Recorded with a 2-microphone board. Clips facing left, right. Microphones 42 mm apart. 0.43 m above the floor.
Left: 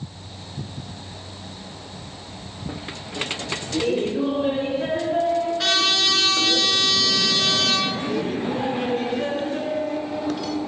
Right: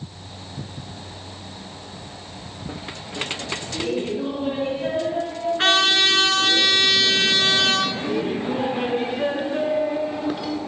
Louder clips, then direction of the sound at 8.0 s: Right 1 dB; 15° right (ahead or behind).